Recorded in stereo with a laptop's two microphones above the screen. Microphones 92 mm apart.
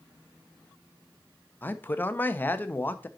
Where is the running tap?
I don't hear a running tap.